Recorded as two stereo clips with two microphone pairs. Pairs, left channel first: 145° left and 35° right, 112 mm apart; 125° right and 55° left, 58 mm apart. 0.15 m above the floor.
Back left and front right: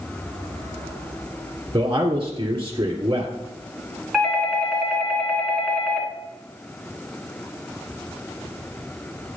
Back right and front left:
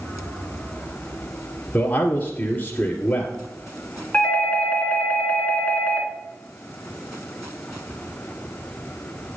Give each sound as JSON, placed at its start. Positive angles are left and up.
{"t": 1.7, "sound": "a man speaking", "azimuth_deg": -80, "distance_m": 1.8}
{"t": 4.1, "sound": "a doorbell", "azimuth_deg": -120, "distance_m": 2.0}